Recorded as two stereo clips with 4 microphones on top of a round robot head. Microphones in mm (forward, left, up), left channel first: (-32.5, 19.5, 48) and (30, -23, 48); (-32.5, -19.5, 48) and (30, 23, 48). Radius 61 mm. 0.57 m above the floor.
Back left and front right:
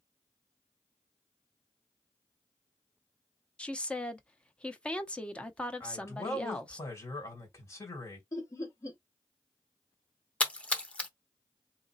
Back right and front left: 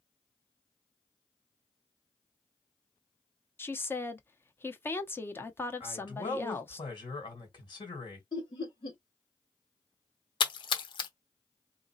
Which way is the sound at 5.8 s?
160° right.